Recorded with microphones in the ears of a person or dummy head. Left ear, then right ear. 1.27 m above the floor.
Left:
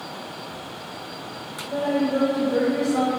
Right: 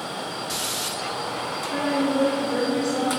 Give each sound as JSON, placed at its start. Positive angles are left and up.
{"t": 1.7, "sound": "a woman speaking", "side_deg": -30, "distance_m": 0.8}